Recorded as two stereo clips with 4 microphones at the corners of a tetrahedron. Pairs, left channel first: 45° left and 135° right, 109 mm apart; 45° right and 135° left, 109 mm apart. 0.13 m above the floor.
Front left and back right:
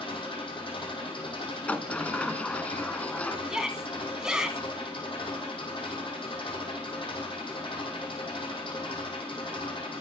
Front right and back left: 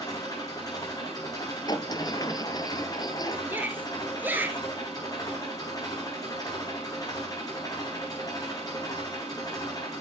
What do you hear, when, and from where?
0.0 s an engine running: 10° left, 5 m
1.7 s a sliding door: 25° right, 0.7 m
3.5 s a shout: 155° left, 1.4 m